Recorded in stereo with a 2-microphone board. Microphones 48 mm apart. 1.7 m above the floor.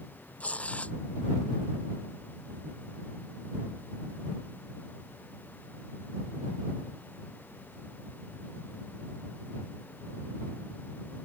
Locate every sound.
0.4 s tearing paper: 25° left (ahead or behind)